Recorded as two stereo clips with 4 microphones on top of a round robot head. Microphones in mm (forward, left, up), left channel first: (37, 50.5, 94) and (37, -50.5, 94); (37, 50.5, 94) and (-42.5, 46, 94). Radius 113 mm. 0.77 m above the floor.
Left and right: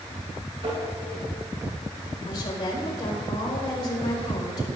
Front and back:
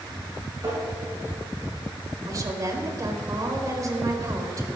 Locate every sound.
0.6 s tapping: 125° right, 6 m
2.3 s a woman speaking: 140° left, 4 m